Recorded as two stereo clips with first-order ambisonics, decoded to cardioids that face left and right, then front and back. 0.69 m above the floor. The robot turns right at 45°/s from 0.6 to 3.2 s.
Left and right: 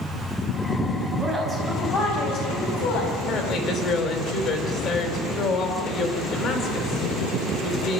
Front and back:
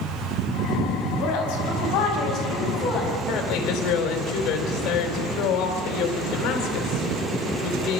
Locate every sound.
1.2 s a woman speaking: 5° right, 5.5 m; by 3.1 s 80° left, 5.5 m
3.3 s a woman speaking: 35° left, 3.5 m